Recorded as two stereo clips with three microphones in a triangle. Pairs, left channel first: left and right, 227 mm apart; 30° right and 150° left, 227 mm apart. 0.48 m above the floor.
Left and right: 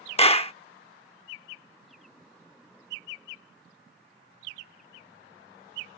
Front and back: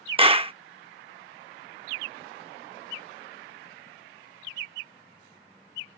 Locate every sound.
0.2 s a clap: 115° left